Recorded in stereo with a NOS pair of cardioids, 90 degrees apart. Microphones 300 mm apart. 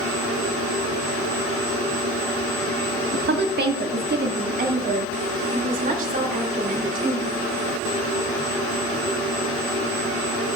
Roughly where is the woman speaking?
Ahead right.